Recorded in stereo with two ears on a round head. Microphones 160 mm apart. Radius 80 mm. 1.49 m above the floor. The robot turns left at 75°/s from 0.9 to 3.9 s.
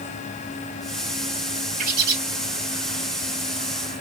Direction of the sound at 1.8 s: 45° right (ahead or behind).